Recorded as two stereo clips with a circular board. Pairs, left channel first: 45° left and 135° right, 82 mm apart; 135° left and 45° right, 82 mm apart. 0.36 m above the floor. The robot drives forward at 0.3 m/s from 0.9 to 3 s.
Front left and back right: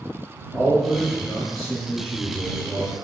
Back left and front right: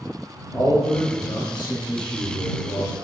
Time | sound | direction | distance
0.5 | a man speaking | 130° left | 1.0 m